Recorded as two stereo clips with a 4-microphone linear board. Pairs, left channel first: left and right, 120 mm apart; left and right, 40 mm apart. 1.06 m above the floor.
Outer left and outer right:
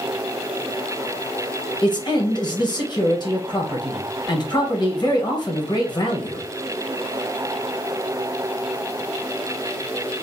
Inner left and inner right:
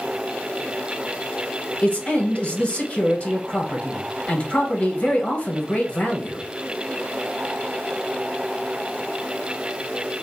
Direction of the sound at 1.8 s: 40° left (ahead or behind).